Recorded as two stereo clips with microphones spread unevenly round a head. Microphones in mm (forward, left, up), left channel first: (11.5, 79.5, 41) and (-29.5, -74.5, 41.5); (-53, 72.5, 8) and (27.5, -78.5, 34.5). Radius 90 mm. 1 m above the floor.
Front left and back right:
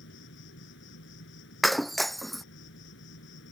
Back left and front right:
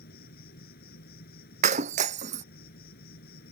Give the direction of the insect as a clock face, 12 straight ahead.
9 o'clock.